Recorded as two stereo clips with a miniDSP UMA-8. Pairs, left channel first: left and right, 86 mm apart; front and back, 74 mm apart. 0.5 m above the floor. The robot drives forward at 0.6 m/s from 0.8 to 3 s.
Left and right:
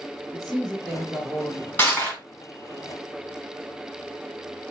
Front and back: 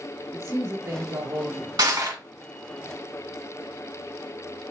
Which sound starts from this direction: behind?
A man speaking, at 0.3 s.